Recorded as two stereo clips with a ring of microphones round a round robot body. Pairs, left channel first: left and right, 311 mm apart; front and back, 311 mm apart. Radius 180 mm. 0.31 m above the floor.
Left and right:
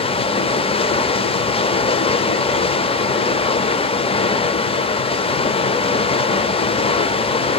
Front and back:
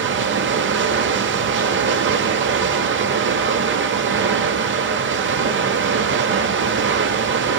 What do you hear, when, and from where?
0.0 s running water: 155° left, 0.7 m